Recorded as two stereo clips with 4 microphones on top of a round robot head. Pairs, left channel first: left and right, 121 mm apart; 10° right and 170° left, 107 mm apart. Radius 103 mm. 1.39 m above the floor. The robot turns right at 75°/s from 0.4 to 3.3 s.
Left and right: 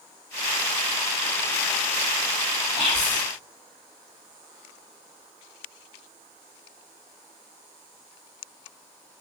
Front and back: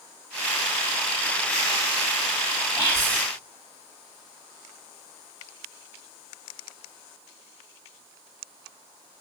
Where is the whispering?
40° left, 1.6 m; by 3.2 s 80° left, 1.6 m.